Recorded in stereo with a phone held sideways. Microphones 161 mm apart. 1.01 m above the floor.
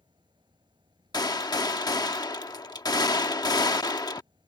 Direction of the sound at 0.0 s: 30° right (ahead or behind).